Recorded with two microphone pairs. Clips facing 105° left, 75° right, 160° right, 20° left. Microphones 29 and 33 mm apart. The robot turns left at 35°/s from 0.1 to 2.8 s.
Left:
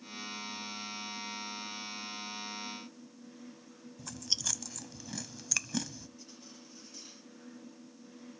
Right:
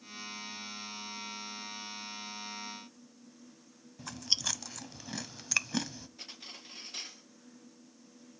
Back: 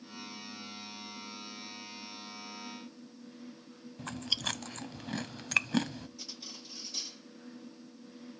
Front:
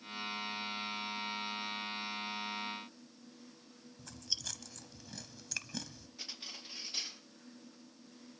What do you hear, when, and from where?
4.0 s chewing: 135° right, 0.6 m
6.2 s cutlery clinking: 45° right, 3 m